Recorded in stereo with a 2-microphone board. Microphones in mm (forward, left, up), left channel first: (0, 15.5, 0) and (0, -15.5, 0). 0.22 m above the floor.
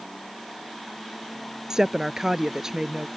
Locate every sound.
1.7 s a woman speaking: 20° right (ahead or behind)